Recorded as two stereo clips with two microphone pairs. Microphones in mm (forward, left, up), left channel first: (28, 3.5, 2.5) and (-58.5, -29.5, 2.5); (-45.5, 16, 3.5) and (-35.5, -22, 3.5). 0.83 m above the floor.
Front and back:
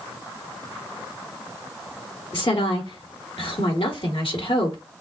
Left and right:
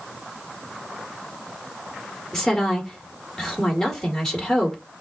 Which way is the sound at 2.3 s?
25° left.